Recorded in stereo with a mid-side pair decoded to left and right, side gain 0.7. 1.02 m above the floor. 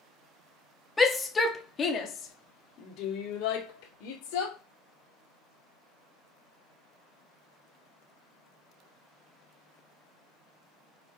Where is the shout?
15° left, 1.9 m; by 4.6 s 75° left, 3.5 m.